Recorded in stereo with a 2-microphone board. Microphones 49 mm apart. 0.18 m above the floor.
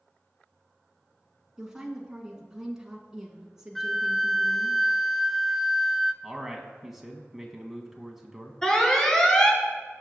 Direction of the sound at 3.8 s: Centre (ahead or behind).